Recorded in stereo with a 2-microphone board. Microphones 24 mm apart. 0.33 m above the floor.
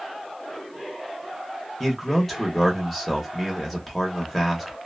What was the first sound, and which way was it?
A man speaking, 5° left (ahead or behind).